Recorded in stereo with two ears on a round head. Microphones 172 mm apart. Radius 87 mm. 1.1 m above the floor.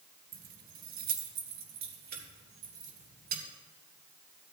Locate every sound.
0.3 s keys jangling: 45° right (ahead or behind), 0.7 m; by 3.4 s 55° right (ahead or behind), 3 m